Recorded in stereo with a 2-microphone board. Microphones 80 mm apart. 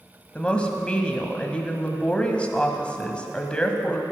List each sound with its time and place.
0.3 s a woman speaking: 15° left (ahead or behind), 1.4 m